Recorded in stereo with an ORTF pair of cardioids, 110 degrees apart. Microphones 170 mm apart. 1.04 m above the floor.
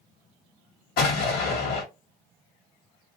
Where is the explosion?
65° left, 1.3 m.